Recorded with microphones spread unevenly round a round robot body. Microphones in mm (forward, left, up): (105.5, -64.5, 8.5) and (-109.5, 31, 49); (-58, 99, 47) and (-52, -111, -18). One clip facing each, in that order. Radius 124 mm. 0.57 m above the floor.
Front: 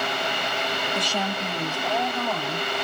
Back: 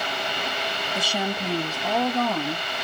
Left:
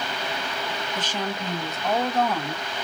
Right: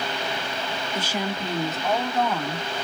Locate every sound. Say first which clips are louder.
0.9 s a woman speaking: back 4 dB, right 2 dB; 100° right, 0.9 m; by 2.7 s 175° right, 1.8 m